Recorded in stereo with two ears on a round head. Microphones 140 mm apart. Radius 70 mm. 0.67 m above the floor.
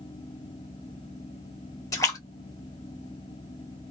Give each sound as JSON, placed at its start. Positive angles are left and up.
{"t": 1.9, "sound": "a splash", "side_deg": 20, "distance_m": 1.1}